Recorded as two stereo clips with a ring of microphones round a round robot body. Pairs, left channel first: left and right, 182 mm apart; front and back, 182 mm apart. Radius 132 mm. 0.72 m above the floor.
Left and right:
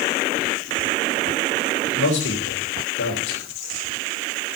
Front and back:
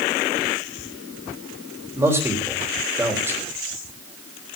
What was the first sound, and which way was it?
A man speaking, 105° left.